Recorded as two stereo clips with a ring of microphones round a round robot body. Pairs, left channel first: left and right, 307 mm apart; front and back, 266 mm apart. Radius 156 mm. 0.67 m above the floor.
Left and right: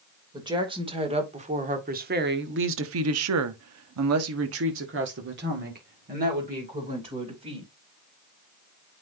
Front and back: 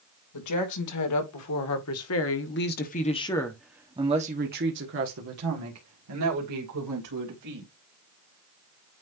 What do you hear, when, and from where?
0.3 s a woman speaking: 15° right, 2.5 m; by 7.7 s 160° right, 3.5 m